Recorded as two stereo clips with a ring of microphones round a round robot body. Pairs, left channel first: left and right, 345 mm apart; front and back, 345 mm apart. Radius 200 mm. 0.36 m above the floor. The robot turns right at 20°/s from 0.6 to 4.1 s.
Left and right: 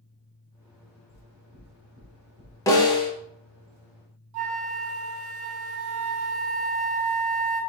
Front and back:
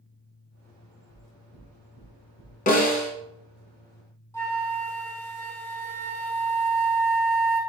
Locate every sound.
1.1 s knocking: 145° right, 2 m; by 2.6 s 115° right, 2 m
2.7 s a snare drum: 25° left, 1.2 m; by 3.1 s 30° left, 1.2 m
4.3 s a flute: 80° right, 1.2 m